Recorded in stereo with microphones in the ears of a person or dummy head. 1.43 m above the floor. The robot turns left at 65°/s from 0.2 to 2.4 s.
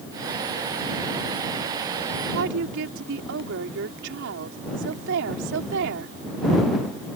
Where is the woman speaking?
70° right (ahead or behind); by 6.2 s 65° right (ahead or behind).